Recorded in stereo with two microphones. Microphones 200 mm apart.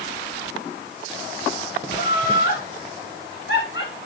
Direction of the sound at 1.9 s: 45° left (ahead or behind).